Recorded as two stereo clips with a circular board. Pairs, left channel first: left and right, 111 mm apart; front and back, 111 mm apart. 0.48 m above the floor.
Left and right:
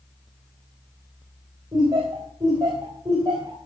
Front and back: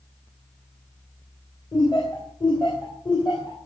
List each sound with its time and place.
1.7 s laughter: 40° right, 3 m